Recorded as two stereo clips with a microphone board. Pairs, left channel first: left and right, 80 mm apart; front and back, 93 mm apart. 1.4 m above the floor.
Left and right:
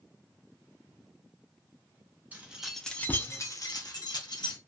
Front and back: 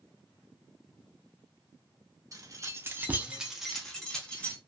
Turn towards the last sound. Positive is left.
turn(degrees=75)